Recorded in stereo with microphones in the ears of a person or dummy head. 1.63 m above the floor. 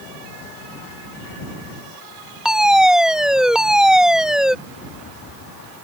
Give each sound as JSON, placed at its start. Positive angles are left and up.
{"t": 2.5, "sound": "a fire alarm", "side_deg": 0}
{"t": 4.7, "sound": "a rattle", "side_deg": 55}